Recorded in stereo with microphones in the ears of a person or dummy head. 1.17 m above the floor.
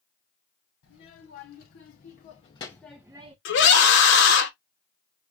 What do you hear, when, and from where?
0.8 s a child speaking: 60° left (ahead or behind), 1.2 m; by 3.4 s 25° right (ahead or behind), 0.5 m
3.5 s a scream: 60° left (ahead or behind), 0.8 m